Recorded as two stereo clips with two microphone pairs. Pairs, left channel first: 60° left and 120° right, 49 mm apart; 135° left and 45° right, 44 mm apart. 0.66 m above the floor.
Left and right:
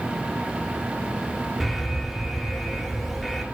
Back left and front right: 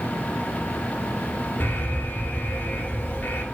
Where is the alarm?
150° left, 2 m.